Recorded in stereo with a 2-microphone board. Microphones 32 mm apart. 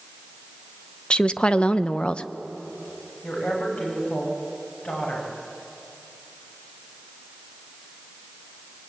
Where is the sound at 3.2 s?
65° left (ahead or behind), 7 m.